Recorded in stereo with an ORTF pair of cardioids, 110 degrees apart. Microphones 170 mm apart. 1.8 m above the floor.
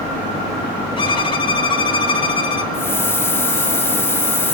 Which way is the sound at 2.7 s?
15° left.